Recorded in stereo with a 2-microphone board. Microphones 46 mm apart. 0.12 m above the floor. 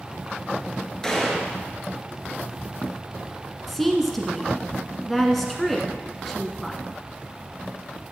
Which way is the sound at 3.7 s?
5° left (ahead or behind).